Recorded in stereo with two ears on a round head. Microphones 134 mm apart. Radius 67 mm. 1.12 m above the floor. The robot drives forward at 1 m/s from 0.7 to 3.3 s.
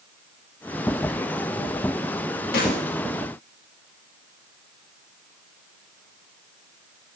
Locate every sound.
2.5 s a snare drum: 75° left (ahead or behind), 2.5 m; by 2.9 s 70° left (ahead or behind), 2.5 m